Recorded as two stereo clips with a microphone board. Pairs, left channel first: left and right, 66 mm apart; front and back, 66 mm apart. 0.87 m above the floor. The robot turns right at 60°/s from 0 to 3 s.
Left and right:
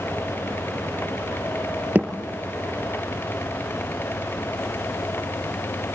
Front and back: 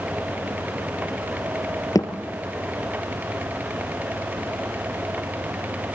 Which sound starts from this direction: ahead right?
A thud, at 1.9 s.